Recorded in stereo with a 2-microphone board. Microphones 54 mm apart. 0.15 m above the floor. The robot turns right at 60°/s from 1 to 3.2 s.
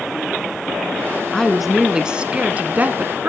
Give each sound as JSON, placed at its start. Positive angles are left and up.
{"t": 1.3, "sound": "a woman speaking", "azimuth_deg": 165, "distance_m": 1.1}